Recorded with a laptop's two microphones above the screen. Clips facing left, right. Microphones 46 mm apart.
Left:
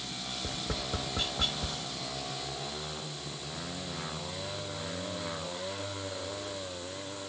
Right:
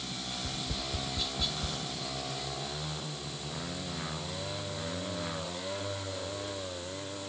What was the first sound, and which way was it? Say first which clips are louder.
Tapping: left 4 dB; 50° left (ahead or behind).